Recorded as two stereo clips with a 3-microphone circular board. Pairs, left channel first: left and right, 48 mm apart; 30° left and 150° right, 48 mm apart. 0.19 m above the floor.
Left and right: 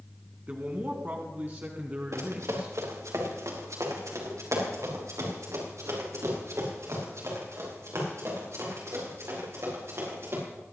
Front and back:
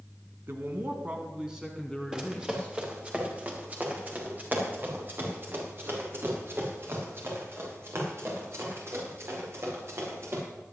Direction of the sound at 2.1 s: 75° right.